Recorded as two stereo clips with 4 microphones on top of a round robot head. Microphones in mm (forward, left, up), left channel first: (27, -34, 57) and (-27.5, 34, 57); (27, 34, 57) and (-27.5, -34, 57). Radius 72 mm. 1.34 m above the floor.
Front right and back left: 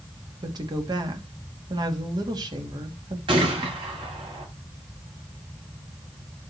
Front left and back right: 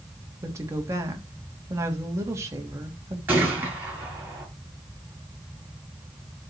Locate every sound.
0.4 s a woman speaking: 170° left, 2.5 m
3.3 s a gunshot: 165° left, 7.5 m